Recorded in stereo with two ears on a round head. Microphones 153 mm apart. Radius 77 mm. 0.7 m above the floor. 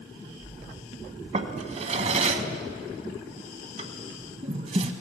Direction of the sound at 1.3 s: 40° right (ahead or behind).